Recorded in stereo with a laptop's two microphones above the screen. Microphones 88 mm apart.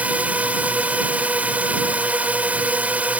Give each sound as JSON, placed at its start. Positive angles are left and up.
{"t": 0.0, "sound": "a drone", "side_deg": -15}